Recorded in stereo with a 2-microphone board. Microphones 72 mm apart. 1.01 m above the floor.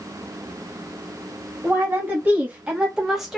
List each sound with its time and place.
1.6 s a woman speaking: 30° right (ahead or behind), 1.5 m; by 3.4 s centre (ahead or behind), 0.9 m